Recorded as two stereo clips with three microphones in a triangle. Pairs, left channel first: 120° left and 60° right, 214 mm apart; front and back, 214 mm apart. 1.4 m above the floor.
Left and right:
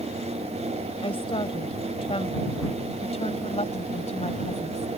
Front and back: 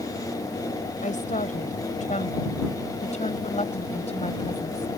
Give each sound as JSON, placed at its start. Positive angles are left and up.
{"t": 1.0, "sound": "a woman speaking", "azimuth_deg": 55}